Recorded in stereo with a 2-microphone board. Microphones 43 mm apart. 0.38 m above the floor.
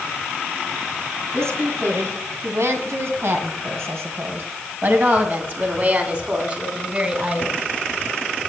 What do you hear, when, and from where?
1.3 s a woman speaking: 70° right (ahead or behind), 3 m; by 7.6 s 25° right (ahead or behind), 3 m